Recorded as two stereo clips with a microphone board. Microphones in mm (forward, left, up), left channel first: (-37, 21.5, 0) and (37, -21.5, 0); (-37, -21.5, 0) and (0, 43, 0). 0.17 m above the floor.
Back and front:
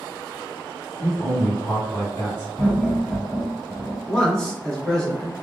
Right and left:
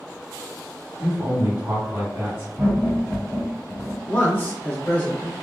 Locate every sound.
1.0 s a man speaking: 110° left, 1.9 m
2.6 s laughter: 65° left, 1.3 m
4.1 s a man speaking: 140° right, 1.2 m